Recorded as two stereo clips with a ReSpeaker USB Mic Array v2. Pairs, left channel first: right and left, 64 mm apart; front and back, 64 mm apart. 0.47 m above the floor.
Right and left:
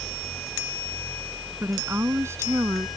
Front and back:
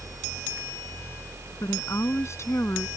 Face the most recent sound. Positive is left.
turn(degrees=50)